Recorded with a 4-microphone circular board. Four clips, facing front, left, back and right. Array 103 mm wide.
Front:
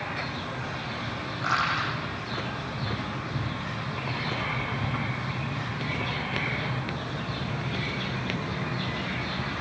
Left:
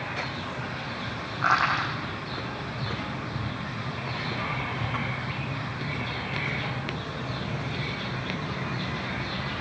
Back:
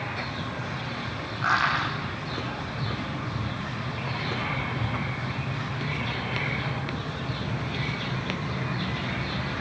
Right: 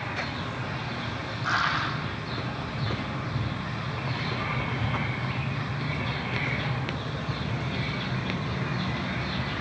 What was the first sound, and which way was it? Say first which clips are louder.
Crushing: left 3 dB, back 3 dB; 100° left.